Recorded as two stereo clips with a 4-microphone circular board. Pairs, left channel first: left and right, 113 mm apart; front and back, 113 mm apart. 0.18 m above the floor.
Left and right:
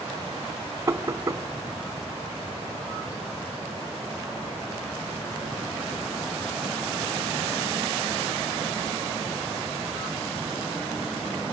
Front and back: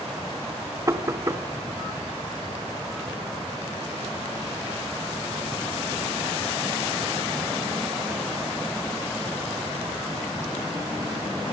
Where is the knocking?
140° right, 1.1 m.